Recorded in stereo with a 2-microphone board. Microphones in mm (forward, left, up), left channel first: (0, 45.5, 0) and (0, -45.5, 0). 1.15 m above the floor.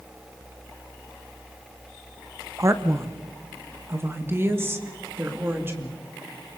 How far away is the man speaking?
About 1.0 m.